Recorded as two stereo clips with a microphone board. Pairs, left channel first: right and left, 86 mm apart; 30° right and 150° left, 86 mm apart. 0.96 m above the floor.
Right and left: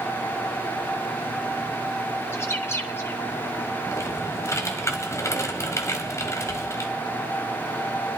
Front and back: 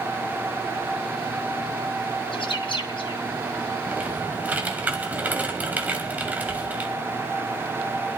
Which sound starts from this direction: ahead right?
A bird, at 2.3 s.